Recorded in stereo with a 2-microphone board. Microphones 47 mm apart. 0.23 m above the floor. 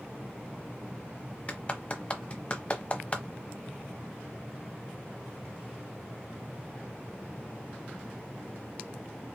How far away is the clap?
About 0.9 m.